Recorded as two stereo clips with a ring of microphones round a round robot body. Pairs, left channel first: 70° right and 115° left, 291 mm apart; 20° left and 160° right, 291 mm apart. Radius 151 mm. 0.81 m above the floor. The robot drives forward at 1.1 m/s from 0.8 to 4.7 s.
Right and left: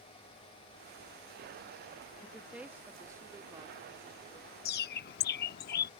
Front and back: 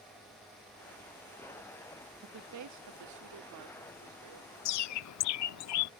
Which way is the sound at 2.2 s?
155° right.